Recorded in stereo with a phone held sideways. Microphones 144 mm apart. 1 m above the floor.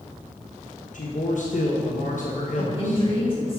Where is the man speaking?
60° left (ahead or behind), 0.9 m.